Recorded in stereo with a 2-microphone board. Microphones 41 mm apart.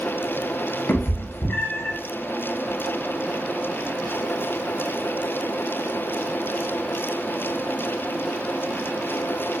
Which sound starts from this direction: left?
A cat meowing, at 0.9 s.